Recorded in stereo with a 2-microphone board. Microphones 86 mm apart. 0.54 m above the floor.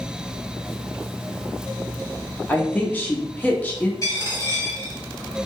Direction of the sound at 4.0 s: 40° left (ahead or behind).